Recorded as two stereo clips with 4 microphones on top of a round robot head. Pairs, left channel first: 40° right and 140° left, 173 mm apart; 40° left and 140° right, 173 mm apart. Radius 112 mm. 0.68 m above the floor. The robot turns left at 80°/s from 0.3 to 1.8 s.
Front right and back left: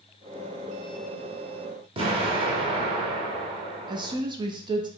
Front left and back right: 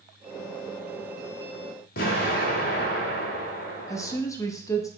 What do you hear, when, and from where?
2.0 s an explosion: 80° left, 0.7 m
3.9 s a woman speaking: 100° left, 0.5 m